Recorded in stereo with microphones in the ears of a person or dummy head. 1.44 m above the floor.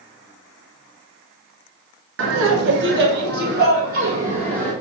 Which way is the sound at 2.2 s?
65° right (ahead or behind).